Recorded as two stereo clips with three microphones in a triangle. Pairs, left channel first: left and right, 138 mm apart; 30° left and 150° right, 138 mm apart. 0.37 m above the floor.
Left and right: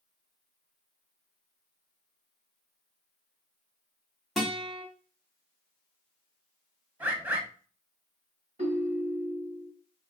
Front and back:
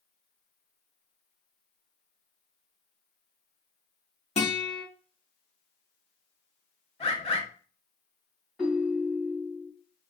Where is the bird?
15° right, 0.8 m.